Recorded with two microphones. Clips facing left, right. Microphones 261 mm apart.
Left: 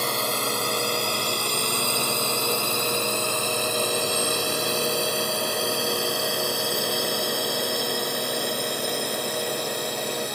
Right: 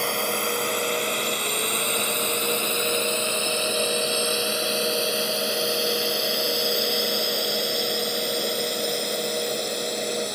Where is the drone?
45° left (ahead or behind); by 10.4 s 65° left (ahead or behind).